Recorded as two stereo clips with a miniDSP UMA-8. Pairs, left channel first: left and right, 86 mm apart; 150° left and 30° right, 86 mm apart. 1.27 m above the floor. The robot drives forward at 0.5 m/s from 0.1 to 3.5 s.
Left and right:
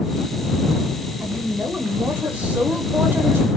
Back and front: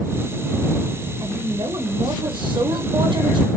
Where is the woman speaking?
10° right, 1.7 m; by 3.6 s 25° right, 0.6 m.